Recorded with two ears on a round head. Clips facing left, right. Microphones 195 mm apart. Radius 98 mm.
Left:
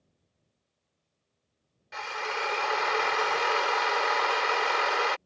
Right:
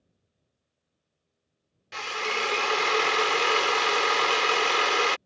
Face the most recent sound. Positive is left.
turn(degrees=-40)  # may be behind; listen again after turning